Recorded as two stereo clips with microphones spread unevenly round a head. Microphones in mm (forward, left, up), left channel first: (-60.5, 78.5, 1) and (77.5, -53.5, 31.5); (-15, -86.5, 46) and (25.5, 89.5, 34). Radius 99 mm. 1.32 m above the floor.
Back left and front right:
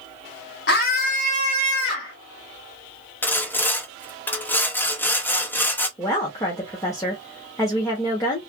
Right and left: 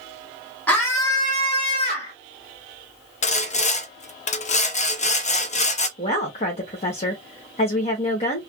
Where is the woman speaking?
155° right, 1.0 m.